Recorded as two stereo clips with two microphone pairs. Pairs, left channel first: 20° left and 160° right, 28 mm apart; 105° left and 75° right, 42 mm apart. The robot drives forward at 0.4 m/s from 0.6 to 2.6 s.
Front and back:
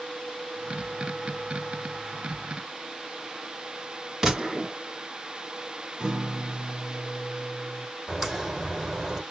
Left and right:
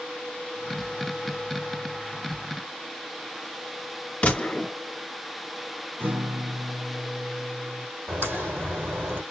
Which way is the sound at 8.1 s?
75° right.